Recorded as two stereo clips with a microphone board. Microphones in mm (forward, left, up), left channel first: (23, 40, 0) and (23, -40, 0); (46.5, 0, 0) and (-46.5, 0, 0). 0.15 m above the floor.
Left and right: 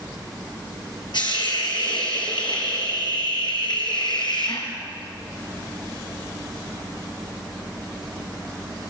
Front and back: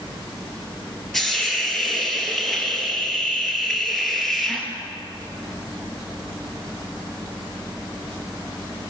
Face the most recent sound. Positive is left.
turn(degrees=90)